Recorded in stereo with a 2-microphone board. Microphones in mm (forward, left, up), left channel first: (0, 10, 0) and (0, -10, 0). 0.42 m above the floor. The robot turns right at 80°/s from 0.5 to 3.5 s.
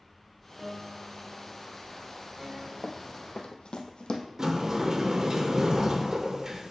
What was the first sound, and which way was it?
A piano, 175° left.